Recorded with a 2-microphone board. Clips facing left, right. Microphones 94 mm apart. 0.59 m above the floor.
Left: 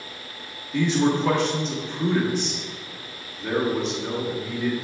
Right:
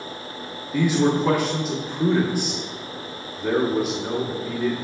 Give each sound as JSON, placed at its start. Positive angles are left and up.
{"t": 0.7, "sound": "a man speaking", "side_deg": -10, "distance_m": 1.1}